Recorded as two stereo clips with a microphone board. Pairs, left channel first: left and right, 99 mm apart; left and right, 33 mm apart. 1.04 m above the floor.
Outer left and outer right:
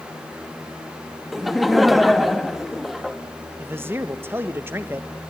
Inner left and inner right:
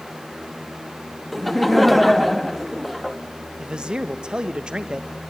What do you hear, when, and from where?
1.3 s laughter: centre (ahead or behind), 2 m
3.6 s a man speaking: 25° right (ahead or behind), 1.4 m